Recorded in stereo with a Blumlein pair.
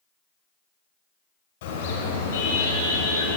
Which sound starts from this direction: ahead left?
A car horn, at 1.6 s.